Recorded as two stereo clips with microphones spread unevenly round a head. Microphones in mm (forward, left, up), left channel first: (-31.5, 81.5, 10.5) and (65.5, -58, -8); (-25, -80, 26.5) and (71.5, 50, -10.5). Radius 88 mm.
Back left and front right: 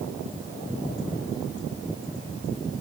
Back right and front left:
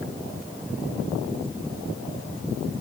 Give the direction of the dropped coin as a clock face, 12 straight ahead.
I don't hear a dropped coin.